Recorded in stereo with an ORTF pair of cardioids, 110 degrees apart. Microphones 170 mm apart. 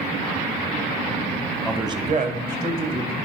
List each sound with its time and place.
1.6 s a man speaking: straight ahead, 0.6 m; by 3.1 s 70° right, 1.9 m